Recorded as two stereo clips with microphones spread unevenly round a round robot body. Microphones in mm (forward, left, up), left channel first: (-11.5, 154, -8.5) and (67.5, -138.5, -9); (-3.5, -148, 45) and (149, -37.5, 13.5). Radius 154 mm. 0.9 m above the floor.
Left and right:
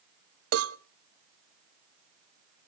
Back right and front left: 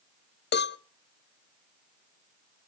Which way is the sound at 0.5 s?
115° right.